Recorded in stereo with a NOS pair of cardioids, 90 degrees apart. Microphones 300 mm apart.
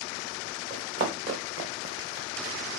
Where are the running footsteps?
55° right, 4.5 m; by 2.6 s 45° right, 2.5 m.